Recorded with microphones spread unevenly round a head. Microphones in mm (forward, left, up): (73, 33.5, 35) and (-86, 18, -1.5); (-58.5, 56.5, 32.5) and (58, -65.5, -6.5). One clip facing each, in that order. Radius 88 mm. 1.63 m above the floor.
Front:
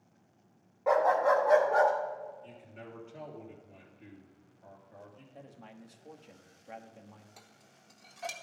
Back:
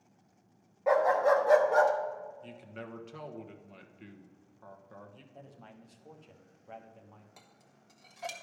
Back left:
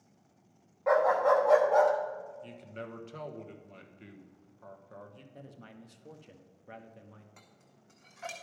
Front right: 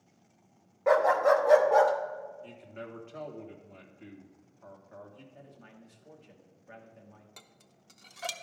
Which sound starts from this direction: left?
A man speaking, at 5.3 s.